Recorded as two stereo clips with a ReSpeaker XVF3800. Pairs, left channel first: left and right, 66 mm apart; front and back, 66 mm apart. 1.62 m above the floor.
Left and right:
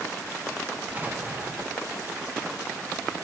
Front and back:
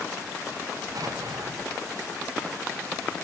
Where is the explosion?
150° right, 2.5 m.